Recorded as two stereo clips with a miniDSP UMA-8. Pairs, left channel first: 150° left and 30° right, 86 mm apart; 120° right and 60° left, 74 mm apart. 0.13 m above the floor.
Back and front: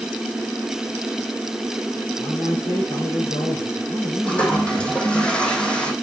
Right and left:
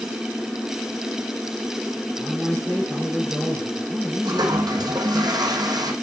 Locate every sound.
2.2 s a man speaking: 140° left, 6.5 m
4.2 s a toilet flushing: 75° left, 1.5 m